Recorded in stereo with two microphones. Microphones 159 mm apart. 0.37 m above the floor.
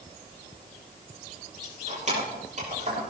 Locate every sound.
1.6 s keys jangling: 50° right (ahead or behind), 6 m; by 3.1 s 45° right (ahead or behind), 7 m